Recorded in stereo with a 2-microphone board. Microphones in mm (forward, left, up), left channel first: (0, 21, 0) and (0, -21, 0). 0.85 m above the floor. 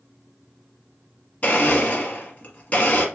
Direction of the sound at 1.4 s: 35° left (ahead or behind).